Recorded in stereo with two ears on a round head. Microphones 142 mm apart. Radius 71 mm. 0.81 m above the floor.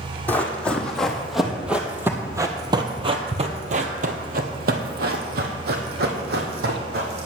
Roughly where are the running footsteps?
Centre.